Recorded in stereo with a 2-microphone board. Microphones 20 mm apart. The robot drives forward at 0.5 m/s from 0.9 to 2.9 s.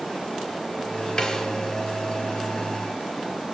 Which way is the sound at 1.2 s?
30° left (ahead or behind).